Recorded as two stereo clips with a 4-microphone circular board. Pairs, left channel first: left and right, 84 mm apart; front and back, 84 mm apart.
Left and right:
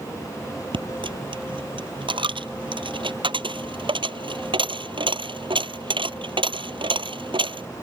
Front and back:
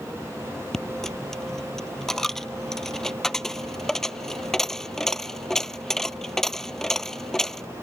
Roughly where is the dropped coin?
Right.